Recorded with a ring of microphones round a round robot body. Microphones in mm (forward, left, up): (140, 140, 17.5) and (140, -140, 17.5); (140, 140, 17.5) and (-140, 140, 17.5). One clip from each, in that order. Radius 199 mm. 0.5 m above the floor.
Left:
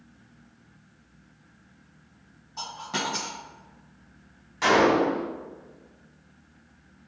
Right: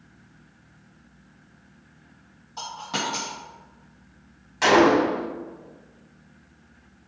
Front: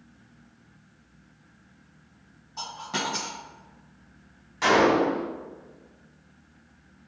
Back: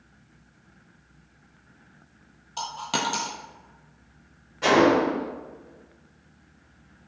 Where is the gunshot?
35° right, 1.0 m.